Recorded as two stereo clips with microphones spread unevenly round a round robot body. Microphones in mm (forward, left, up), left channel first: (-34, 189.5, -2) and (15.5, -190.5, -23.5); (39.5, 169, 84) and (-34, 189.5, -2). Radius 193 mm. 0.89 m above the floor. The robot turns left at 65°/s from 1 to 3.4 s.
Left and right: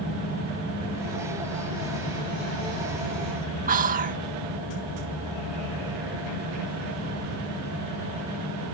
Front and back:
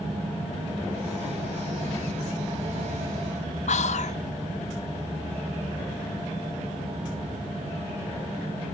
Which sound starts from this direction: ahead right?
Whispering, at 3.7 s.